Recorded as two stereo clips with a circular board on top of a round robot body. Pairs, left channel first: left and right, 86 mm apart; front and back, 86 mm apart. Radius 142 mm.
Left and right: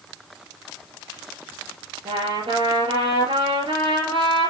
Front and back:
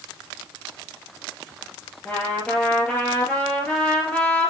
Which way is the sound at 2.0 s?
75° right.